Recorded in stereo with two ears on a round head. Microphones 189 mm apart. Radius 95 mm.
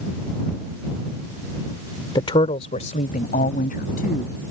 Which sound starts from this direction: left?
A woman speaking, at 2.1 s.